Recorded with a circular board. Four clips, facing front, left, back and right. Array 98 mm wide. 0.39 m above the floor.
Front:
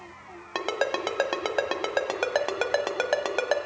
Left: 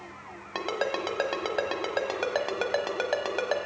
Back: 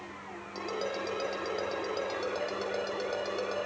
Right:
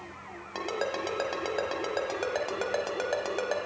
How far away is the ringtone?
About 1.0 m.